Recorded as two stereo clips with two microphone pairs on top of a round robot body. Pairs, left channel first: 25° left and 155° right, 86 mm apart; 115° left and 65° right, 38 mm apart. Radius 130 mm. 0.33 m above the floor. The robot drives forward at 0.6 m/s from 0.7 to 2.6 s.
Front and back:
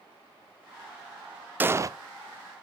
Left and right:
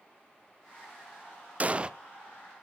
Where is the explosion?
110° right, 0.5 m; by 1.9 s 145° right, 0.6 m.